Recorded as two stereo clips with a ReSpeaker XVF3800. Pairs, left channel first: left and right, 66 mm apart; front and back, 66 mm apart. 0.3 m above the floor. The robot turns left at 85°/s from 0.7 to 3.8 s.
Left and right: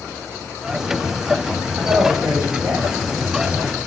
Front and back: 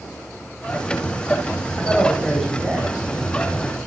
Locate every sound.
1.8 s a man speaking: 40° right, 1.0 m; by 3.3 s 175° right, 1.0 m